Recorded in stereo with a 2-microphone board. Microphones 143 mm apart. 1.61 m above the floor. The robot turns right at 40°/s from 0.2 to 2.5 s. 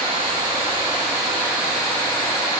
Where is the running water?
60° right, 6 m; by 2.6 s 30° left, 6 m.